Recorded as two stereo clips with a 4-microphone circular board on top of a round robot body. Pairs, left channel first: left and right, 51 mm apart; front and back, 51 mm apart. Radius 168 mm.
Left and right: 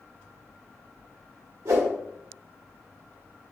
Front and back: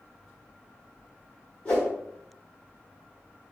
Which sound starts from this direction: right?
A whoosh, at 1.6 s.